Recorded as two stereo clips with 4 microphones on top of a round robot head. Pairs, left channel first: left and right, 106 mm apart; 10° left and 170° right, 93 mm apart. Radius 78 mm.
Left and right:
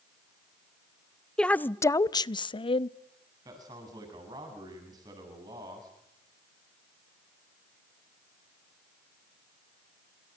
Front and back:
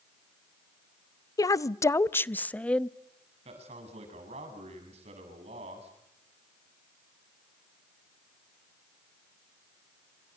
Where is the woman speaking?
10° left, 0.7 m; by 2.9 s 90° left, 1.0 m.